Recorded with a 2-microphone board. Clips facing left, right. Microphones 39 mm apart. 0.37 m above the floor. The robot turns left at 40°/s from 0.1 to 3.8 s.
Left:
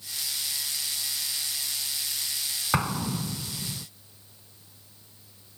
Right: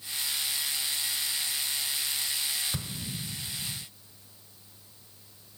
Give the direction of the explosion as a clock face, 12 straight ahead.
8 o'clock.